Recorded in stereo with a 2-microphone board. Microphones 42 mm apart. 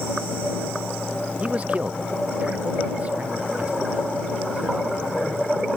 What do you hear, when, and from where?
1.4 s a man speaking: 30° right (ahead or behind)